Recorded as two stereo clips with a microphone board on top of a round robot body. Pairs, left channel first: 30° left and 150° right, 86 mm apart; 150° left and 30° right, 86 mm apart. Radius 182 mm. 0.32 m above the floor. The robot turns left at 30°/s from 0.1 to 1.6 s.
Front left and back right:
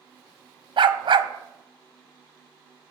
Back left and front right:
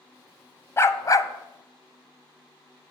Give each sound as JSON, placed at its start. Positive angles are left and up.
{"t": 0.8, "sound": "a dog barking", "azimuth_deg": -150, "distance_m": 0.7}